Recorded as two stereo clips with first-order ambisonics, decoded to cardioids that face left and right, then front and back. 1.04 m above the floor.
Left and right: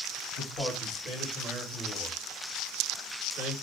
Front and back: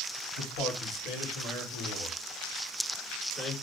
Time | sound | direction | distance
0.3 | a man speaking | 15° left | 3 m